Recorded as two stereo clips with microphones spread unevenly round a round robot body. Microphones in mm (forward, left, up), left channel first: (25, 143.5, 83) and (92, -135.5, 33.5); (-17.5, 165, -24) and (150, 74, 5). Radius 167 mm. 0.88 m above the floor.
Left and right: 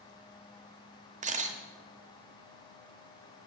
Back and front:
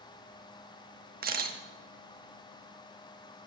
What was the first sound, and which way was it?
A camera shutter, 10° right.